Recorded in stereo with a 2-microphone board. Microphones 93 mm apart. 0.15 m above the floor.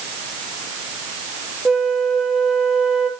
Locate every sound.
1.6 s a flute: 5° right (ahead or behind), 1.6 m